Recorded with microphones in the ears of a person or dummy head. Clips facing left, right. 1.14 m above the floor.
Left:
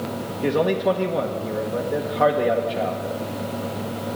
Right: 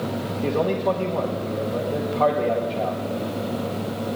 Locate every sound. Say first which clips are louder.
0.4 s a man speaking: left 2 dB; 15° left (ahead or behind), 1.3 m